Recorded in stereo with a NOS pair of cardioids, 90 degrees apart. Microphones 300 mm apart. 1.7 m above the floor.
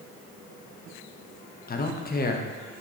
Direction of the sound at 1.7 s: 30° left.